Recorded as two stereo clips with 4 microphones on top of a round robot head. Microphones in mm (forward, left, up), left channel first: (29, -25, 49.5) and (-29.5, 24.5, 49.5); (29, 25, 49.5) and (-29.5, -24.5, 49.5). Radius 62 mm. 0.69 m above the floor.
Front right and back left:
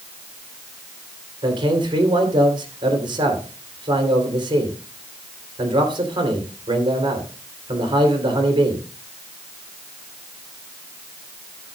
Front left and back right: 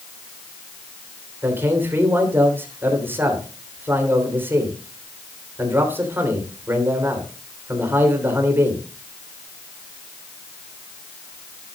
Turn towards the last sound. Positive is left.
turn(degrees=155)